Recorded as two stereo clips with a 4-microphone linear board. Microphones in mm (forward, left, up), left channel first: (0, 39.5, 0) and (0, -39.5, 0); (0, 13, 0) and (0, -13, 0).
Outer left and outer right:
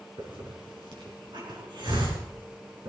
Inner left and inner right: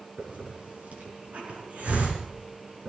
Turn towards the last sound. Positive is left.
turn(degrees=-80)